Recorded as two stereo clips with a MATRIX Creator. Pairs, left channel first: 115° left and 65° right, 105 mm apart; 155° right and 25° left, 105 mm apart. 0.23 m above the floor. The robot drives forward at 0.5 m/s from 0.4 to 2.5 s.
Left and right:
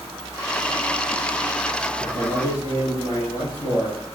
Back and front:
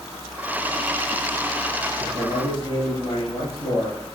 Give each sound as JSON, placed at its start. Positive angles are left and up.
{"t": 2.0, "sound": "a man speaking", "azimuth_deg": 165, "distance_m": 4.5}